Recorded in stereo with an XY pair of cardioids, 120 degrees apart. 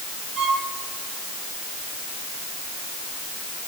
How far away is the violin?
About 9 m.